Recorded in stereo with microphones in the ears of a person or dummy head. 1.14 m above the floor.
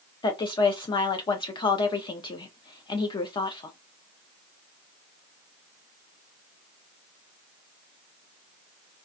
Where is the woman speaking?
25° left (ahead or behind), 0.5 m.